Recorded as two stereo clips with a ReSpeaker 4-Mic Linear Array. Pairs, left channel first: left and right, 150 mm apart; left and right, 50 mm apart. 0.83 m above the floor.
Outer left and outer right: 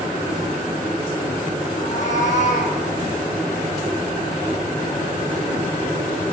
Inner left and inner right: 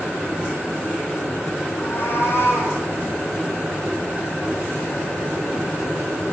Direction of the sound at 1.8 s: 50° left (ahead or behind).